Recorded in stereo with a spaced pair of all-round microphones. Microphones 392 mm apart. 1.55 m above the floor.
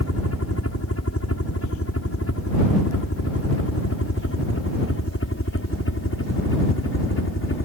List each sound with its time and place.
0.0 s a helicopter: 35° left (ahead or behind); by 7.7 s 30° left (ahead or behind)